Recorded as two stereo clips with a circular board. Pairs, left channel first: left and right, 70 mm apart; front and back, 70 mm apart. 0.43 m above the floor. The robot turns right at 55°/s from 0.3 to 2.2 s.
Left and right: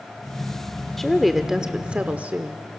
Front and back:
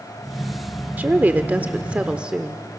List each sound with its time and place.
1.0 s a woman speaking: 170° left, 0.8 m; by 2.7 s 125° right, 0.8 m